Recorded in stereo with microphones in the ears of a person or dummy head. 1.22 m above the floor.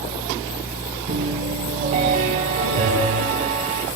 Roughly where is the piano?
Right.